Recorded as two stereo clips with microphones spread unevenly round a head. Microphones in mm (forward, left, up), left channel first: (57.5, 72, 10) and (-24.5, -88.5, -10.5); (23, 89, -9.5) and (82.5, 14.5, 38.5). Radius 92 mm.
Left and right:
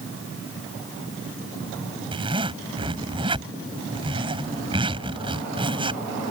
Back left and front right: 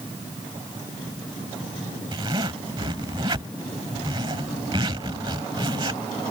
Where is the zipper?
50° right.